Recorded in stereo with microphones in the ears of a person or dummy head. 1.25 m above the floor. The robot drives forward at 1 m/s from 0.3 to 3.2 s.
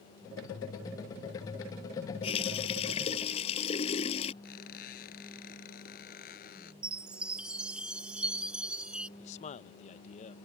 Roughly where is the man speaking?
Left.